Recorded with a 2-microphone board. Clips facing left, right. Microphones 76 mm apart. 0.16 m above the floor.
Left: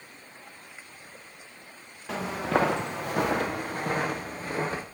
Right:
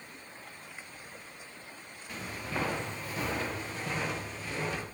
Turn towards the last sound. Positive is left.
turn(degrees=40)  # may be behind; listen again after turning